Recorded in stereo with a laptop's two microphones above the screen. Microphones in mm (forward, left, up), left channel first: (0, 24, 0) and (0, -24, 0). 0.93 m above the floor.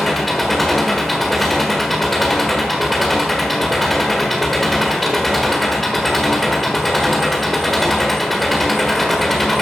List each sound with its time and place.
0.0 s an engine running: 5° left (ahead or behind), 1.4 m